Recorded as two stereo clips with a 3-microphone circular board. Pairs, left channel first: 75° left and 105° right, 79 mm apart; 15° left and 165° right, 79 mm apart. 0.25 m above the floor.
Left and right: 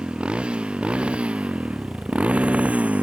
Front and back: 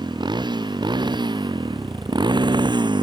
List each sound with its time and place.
0.0 s a motorcycle: straight behind; by 3.0 s 175° right